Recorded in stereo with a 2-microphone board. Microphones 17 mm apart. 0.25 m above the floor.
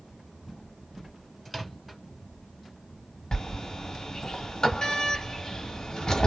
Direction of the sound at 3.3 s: 40° left (ahead or behind).